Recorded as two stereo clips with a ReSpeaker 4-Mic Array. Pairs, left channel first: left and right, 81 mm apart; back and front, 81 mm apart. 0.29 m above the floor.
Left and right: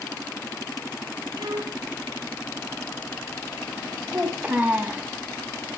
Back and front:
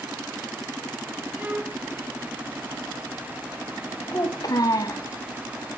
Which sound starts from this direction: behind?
A child speaking, at 4.1 s.